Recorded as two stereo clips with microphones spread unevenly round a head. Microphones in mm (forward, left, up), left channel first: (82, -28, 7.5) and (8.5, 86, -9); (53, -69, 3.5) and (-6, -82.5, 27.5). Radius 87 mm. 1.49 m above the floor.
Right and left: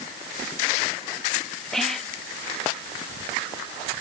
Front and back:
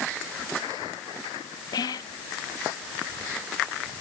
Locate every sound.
1.7 s whispering: 30° left